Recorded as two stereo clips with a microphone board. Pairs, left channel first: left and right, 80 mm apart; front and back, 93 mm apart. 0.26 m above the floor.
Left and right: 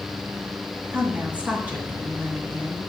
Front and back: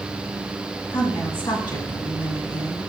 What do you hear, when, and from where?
0.9 s a woman speaking: 20° right, 2.5 m